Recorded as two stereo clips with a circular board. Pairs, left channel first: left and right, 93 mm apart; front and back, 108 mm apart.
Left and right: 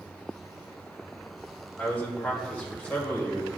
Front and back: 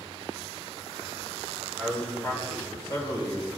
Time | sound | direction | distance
1.8 | a man speaking | 65° left | 1.5 m